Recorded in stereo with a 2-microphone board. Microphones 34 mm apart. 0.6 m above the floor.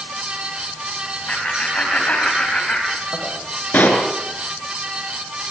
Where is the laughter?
40° left (ahead or behind), 4 m; by 3.3 s 30° left (ahead or behind), 3 m.